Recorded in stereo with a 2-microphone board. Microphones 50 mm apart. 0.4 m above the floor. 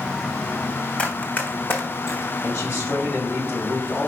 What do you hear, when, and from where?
1.0 s running footsteps: 25° left (ahead or behind), 1.1 m; by 2.3 s 65° left (ahead or behind), 1.3 m
2.4 s a man speaking: 60° left (ahead or behind), 2.5 m